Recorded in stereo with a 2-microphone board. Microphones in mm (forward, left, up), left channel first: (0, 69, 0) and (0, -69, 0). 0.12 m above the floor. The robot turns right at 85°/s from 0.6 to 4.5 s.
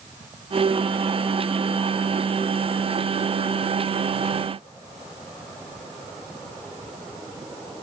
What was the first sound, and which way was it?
Only background noise.